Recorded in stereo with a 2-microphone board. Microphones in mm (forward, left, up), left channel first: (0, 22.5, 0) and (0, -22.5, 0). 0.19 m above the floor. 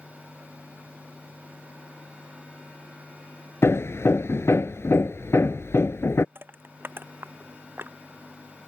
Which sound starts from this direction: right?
Crushing, at 6.3 s.